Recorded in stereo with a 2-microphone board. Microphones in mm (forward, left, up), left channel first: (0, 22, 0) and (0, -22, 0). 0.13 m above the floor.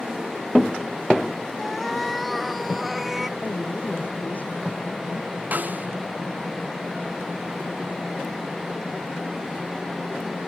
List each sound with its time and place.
1.6 s a cat meowing: centre (ahead or behind); by 3.3 s 10° right (ahead or behind)
3.4 s a woman speaking: 45° left (ahead or behind)
5.5 s a snare drum: 40° right (ahead or behind)